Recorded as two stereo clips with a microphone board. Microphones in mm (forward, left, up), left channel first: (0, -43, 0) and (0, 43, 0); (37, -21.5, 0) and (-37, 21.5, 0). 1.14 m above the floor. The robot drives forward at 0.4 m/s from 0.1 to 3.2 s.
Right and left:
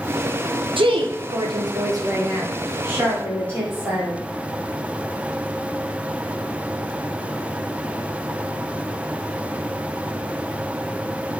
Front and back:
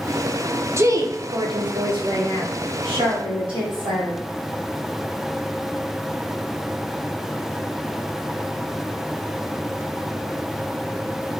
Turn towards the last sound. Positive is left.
turn(degrees=155)